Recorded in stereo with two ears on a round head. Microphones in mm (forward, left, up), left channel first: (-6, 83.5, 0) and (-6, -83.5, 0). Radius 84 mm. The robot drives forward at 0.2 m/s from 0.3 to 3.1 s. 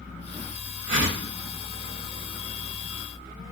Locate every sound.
0.9 s a whoosh: 80° right, 1.5 m